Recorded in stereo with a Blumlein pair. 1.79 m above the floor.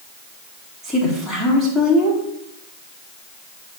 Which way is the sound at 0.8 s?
5° right.